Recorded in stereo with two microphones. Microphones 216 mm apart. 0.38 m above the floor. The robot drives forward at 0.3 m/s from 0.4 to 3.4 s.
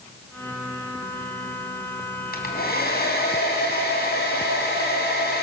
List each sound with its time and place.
2.3 s a hair dryer: 45° left (ahead or behind), 3 m; by 5.5 s 50° left (ahead or behind), 3 m